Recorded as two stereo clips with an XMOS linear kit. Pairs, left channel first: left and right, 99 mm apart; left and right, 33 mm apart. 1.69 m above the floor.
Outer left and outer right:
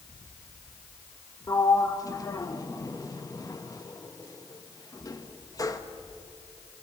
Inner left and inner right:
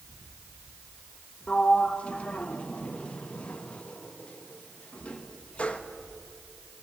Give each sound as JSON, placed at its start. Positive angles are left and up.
{"t": 1.5, "sound": "a sliding door", "side_deg": 35, "distance_m": 1.4}